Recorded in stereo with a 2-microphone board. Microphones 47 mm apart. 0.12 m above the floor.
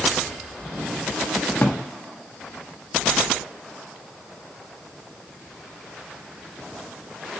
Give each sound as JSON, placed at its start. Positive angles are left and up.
{"t": 1.6, "sound": "a drawer", "side_deg": 40, "distance_m": 1.1}